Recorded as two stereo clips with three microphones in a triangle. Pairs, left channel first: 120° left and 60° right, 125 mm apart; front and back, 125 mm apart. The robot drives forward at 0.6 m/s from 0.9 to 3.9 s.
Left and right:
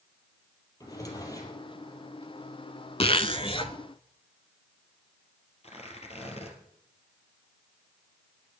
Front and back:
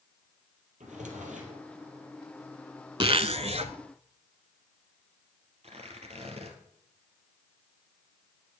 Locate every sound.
0.8 s a drawer: straight behind, 3.5 m
3.0 s a zipper: 145° left, 0.7 m; by 3.7 s 160° left, 1.0 m
5.6 s tearing paper: 150° left, 3 m